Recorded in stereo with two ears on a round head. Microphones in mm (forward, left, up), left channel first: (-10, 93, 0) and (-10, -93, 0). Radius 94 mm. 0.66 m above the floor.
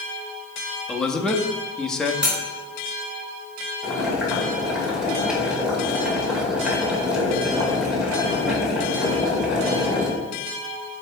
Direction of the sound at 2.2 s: 5° right (ahead or behind).